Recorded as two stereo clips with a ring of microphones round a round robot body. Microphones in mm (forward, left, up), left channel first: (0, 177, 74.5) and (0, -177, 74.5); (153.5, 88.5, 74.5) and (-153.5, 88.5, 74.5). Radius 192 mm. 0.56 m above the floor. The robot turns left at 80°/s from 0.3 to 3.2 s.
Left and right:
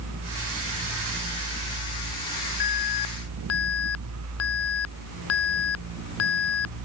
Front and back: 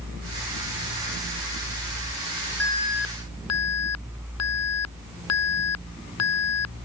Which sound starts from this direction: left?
An alarm, at 2.6 s.